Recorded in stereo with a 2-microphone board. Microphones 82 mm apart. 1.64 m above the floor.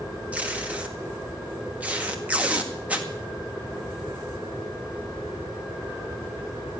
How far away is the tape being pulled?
About 1.9 m.